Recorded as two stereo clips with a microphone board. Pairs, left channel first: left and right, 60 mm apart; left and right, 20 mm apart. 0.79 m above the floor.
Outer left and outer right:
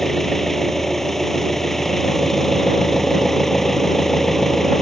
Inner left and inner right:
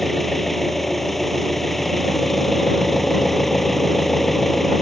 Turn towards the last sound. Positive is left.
turn(degrees=5)  # may be behind; listen again after turning